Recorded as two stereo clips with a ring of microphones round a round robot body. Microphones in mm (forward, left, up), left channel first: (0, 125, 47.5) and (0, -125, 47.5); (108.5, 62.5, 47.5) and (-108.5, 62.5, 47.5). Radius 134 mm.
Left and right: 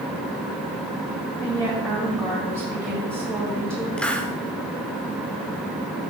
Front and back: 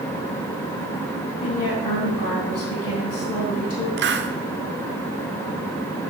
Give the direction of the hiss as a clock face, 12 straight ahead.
6 o'clock.